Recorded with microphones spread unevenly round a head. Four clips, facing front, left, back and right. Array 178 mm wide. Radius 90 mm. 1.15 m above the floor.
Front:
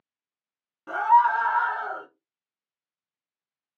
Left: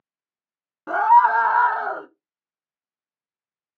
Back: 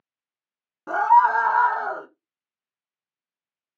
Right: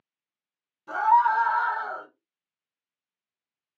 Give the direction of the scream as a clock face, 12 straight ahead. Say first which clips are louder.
Left 5 dB, back 3 dB; 8 o'clock.